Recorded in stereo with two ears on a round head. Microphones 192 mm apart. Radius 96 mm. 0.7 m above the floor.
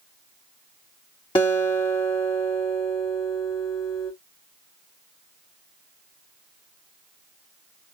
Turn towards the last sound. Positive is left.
turn(degrees=25)  # may be behind; listen again after turning